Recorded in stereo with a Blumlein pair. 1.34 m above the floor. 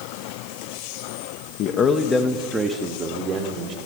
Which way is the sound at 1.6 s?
35° left.